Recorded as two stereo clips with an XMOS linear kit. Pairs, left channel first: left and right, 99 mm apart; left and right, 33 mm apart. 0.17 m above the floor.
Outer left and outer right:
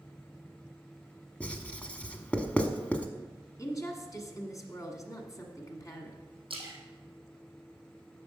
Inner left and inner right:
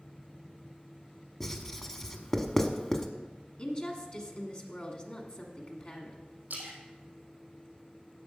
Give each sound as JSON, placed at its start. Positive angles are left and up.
{"t": 1.4, "sound": "writing", "side_deg": 15, "distance_m": 0.9}
{"t": 3.6, "sound": "a woman speaking", "side_deg": 35, "distance_m": 1.3}
{"t": 6.5, "sound": "a splash", "side_deg": -60, "distance_m": 3.0}